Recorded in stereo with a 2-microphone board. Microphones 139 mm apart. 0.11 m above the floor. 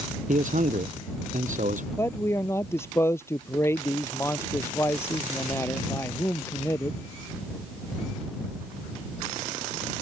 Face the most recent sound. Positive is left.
turn(degrees=20)  # may be behind; listen again after turning